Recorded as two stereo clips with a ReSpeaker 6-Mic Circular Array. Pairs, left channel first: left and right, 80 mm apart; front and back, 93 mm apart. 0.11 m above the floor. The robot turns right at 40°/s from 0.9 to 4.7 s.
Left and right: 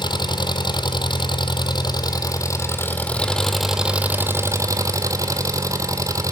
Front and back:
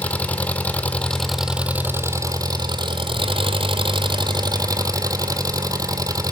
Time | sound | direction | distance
0.0 | an engine running | 75° left | 1.0 m